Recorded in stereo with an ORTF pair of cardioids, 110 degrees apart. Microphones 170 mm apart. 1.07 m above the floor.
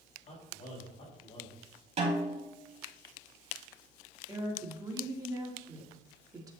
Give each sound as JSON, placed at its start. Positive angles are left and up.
{"t": 0.3, "sound": "a man speaking", "azimuth_deg": 40, "distance_m": 5.0}
{"t": 2.0, "sound": "a snare drum", "azimuth_deg": -35, "distance_m": 5.5}
{"t": 4.3, "sound": "a woman speaking", "azimuth_deg": -20, "distance_m": 3.0}